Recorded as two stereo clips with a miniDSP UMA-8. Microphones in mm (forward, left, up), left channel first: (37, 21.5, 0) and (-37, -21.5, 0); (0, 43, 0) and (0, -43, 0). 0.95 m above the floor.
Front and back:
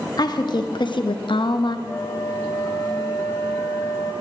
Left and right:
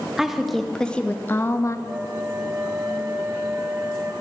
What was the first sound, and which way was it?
A woman speaking, 5° right.